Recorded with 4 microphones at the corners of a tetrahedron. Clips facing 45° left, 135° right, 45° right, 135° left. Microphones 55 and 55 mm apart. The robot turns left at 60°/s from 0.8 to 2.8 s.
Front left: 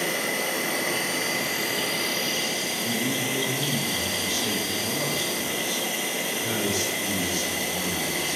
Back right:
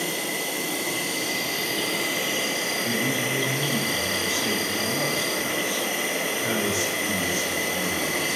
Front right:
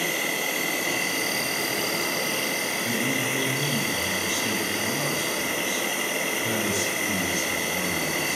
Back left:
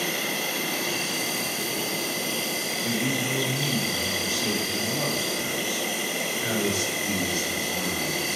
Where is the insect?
20° left, 1.7 m; by 8.4 s 100° right, 1.7 m.